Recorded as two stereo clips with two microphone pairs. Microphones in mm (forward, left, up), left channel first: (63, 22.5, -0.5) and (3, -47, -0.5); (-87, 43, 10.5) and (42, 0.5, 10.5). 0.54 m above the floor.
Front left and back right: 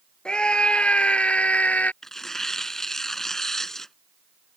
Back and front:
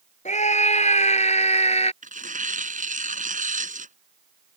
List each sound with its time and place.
0.2 s a scream: 130° left; by 1.9 s 125° left
2.0 s tearing paper: 35° right